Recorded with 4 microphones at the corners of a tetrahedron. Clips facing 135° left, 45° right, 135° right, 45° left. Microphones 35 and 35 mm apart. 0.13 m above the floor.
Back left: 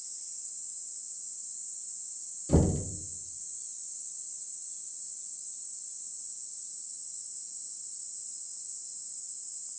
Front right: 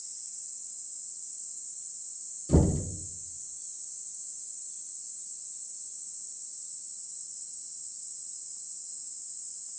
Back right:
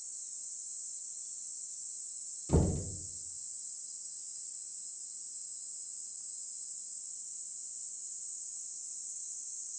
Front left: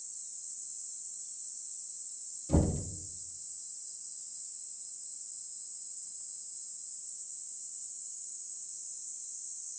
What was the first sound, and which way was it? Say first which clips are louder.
Knocking: front right 1 dB, front left 1 dB; 165° right.